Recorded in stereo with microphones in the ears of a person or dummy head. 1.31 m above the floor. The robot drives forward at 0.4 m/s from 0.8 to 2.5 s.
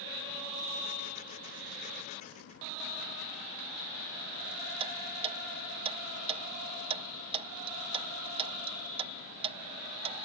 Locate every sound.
4.8 s ticking: 25° right (ahead or behind)